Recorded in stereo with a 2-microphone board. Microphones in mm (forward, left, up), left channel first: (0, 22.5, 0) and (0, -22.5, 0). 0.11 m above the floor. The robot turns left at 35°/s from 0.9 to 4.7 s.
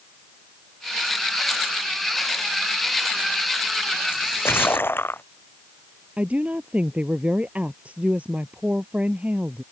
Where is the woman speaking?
30° right (ahead or behind).